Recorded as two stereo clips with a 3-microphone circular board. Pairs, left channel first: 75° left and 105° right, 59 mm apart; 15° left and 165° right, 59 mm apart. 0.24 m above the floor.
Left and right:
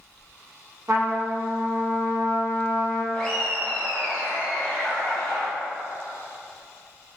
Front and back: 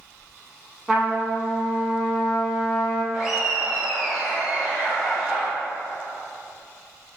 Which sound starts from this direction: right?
A trumpet, at 0.9 s.